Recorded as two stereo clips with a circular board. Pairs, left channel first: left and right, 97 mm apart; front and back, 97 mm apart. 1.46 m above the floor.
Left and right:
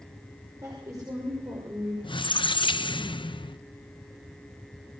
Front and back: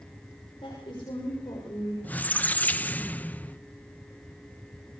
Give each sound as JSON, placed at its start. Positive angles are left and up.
{"t": 0.6, "sound": "a woman speaking", "azimuth_deg": -30, "distance_m": 6.5}
{"t": 2.0, "sound": "a squeak", "azimuth_deg": 70, "distance_m": 0.8}